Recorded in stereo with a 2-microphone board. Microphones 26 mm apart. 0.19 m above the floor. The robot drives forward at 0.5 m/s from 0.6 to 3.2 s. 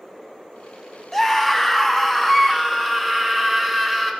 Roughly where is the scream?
Centre.